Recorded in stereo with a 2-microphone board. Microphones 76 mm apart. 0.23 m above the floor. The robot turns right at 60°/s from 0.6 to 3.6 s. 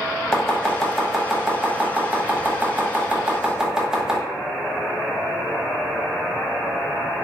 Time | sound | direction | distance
0.3 | chopping | 10° left (ahead or behind) | 0.7 m